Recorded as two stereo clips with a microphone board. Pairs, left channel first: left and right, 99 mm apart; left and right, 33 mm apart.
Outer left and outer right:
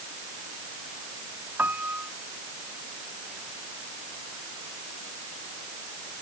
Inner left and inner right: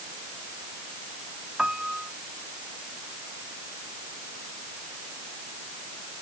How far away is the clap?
No clap in this recording.